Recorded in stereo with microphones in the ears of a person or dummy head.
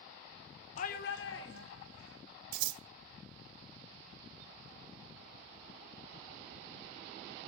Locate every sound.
0.8 s a shout: 40° left (ahead or behind), 0.7 m; by 2.2 s 75° left (ahead or behind), 2.5 m
2.5 s scissors: 55° right (ahead or behind), 0.7 m